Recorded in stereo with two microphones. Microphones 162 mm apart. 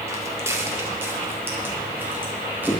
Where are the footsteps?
15° right (ahead or behind), 3 m; by 2.8 s 10° right (ahead or behind), 5 m.